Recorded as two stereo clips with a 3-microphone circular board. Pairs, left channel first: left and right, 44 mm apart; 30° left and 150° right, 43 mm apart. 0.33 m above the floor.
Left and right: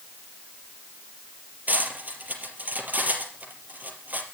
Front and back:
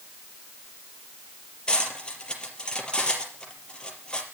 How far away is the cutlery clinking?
About 4.5 m.